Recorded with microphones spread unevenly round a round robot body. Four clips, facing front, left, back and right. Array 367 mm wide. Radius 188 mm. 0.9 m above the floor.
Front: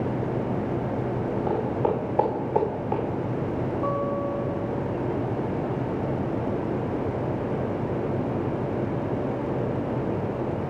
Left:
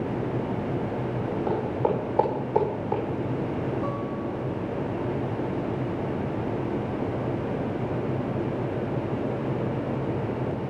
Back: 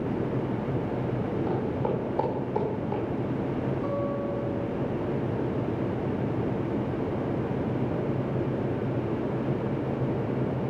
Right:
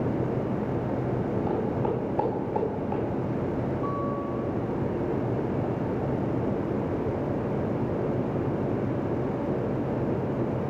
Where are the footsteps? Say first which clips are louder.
Left 4 dB, front 6 dB; 50° left, 9 m.